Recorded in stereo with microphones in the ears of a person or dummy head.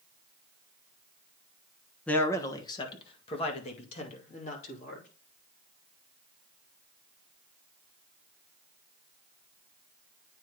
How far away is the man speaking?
About 1.0 m.